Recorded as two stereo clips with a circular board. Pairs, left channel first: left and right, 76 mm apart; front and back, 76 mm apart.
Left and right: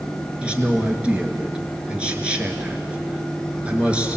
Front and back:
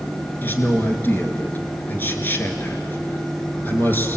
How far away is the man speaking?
About 1.7 m.